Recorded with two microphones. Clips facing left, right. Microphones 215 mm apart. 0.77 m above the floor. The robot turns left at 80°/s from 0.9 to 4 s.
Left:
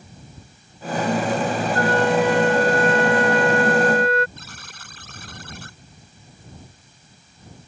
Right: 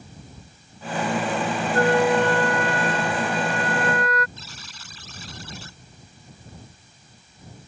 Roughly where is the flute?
Behind right.